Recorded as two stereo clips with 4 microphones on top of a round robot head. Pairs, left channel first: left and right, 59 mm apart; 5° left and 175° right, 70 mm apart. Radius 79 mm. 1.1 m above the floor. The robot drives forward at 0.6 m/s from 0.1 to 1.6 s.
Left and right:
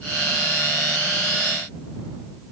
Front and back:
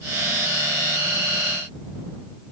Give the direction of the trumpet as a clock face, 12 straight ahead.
I don't hear a trumpet.